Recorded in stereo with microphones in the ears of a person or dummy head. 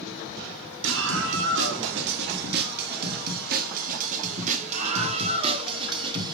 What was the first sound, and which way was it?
A scream, 75° right (ahead or behind).